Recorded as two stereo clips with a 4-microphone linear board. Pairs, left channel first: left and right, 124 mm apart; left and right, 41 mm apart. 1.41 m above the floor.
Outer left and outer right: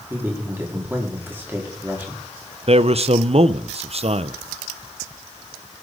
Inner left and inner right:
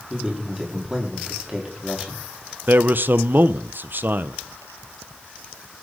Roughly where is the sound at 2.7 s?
Right.